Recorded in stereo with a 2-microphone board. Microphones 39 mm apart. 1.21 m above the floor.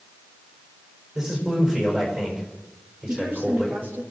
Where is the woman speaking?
70° right (ahead or behind), 2.5 m.